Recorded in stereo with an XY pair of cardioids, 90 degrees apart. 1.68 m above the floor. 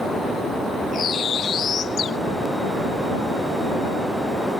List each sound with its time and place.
0.9 s a bird: 65° left